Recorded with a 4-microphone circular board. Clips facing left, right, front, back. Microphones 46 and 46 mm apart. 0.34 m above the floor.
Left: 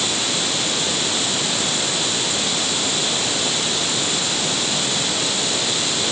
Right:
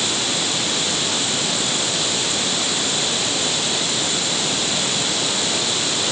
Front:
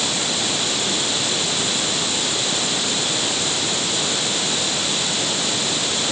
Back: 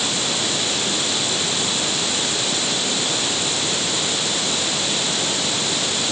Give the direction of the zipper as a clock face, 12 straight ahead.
I don't hear a zipper.